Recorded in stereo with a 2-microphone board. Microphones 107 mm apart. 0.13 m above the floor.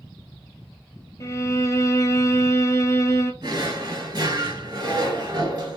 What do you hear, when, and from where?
1.2 s a violin: 30° left (ahead or behind), 0.6 m
3.4 s a drawer: 45° right (ahead or behind), 1.3 m